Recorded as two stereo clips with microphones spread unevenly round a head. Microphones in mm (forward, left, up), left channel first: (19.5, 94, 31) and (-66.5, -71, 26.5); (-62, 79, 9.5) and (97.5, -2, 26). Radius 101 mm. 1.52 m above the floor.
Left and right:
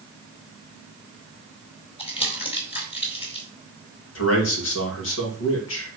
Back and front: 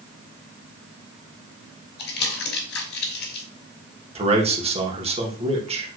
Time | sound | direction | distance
2.0 | crumpling | 125° left | 4.5 m
4.2 | a man speaking | 30° left | 2.5 m